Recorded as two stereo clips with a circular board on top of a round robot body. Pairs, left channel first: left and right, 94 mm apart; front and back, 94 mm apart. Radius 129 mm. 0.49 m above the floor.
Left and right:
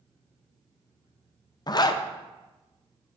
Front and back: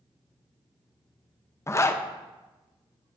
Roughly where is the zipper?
Ahead left.